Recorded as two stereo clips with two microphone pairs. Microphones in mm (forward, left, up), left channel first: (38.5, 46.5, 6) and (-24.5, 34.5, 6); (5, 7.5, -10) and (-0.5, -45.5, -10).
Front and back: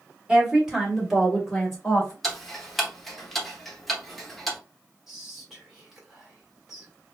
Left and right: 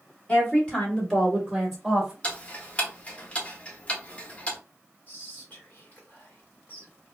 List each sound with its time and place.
0.3 s a woman speaking: 130° left, 1.6 m; by 2.1 s 40° right, 1.4 m
2.2 s ticking: 90° left, 0.8 m
5.1 s whispering: 105° left, 1.7 m